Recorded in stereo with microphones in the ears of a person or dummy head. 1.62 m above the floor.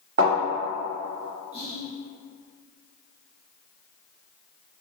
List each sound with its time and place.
0.2 s a thud: 40° right (ahead or behind), 1.5 m
1.5 s whispering: 35° right (ahead or behind), 1.0 m